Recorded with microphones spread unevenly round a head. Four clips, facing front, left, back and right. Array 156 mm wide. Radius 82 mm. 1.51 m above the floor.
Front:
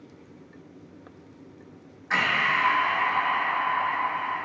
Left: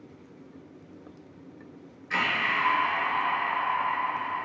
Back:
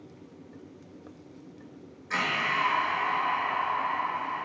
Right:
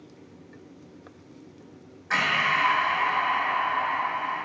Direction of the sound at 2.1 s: 75° right.